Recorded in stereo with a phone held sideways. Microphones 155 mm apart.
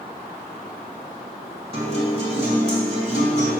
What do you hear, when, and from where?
1.7 s a guitar: 40° right (ahead or behind), 1.8 m